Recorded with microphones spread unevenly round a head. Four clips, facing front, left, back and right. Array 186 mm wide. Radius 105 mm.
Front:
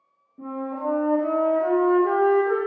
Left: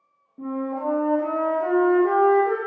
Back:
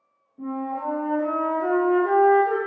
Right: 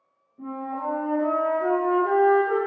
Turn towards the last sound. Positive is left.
turn(degrees=50)